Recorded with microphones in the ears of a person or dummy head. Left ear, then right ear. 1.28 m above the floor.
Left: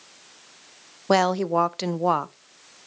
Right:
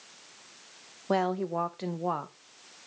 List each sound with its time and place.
1.1 s a woman speaking: 85° left, 0.7 m